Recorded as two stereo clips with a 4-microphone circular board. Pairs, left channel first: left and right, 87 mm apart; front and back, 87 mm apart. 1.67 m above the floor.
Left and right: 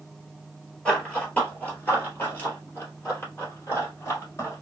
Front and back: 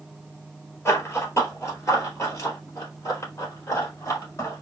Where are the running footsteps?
20° left, 1.8 m; by 4.6 s 45° left, 3 m.